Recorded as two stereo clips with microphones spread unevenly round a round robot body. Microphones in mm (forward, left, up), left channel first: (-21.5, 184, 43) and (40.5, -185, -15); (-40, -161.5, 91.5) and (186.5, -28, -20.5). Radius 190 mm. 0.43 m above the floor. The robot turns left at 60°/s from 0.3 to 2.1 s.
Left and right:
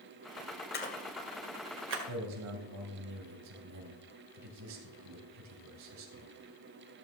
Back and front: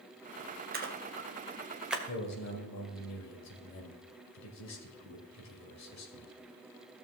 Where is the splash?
35° left, 1.7 m; by 2.0 s 40° right, 1.7 m.